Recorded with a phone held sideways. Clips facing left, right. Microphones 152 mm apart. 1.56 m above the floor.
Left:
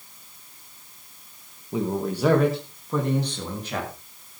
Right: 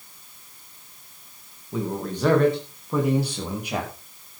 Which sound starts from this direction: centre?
A man speaking, at 1.7 s.